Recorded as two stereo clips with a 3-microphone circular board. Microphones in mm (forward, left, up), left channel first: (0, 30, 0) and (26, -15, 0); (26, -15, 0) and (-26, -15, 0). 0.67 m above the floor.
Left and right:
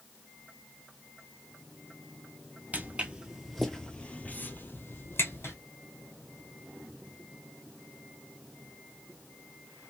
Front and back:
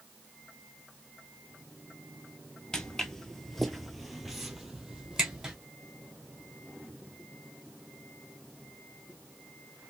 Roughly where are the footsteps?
Right.